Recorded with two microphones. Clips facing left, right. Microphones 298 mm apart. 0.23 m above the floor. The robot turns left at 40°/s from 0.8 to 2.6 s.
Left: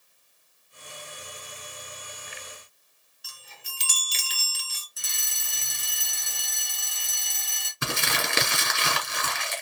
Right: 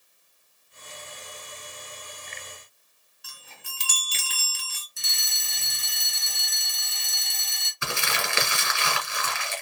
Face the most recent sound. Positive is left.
turn(degrees=45)  # may be behind; listen again after turning